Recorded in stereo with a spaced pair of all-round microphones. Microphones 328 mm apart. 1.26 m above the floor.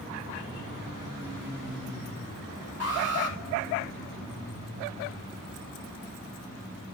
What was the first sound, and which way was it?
An alarm, 45° left (ahead or behind).